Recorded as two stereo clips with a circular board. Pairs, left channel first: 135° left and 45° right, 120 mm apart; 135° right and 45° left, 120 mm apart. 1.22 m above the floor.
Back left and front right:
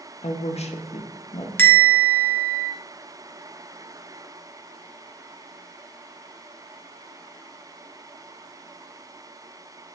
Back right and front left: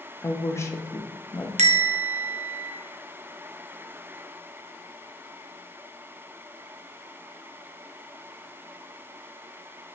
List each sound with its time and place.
0.2 s a woman speaking: 160° left, 0.6 m
1.6 s a bell: 60° left, 0.6 m